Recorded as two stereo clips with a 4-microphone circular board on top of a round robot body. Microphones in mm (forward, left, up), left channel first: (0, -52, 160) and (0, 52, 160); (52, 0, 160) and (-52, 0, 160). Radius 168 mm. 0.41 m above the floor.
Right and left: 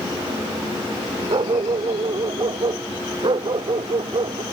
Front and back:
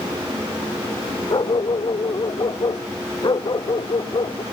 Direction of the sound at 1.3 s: 50° left.